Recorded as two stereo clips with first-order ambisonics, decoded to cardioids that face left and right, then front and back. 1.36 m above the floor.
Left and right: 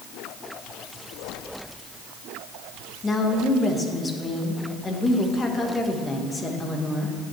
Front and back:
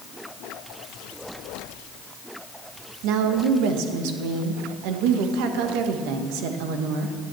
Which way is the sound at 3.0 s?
165° left.